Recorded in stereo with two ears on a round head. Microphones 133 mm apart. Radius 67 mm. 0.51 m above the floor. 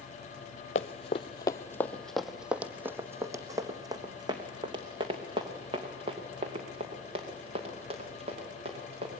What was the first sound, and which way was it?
Running footsteps, 50° left (ahead or behind).